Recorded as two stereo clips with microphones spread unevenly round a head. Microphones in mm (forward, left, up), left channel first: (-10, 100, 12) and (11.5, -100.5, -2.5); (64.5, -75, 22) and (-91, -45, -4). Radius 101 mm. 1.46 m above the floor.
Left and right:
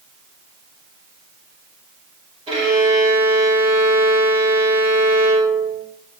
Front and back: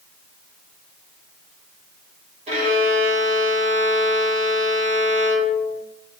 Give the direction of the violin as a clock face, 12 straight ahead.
5 o'clock.